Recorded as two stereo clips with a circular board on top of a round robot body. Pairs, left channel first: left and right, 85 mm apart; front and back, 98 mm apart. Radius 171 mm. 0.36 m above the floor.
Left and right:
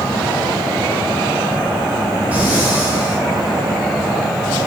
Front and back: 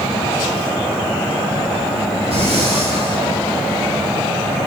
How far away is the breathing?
About 7.5 m.